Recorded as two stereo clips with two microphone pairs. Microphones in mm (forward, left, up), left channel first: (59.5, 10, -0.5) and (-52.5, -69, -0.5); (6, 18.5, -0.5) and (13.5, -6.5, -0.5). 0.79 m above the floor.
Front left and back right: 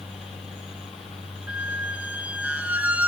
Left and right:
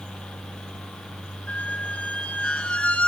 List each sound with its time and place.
1.5 s a squeak: 135° left, 1.7 m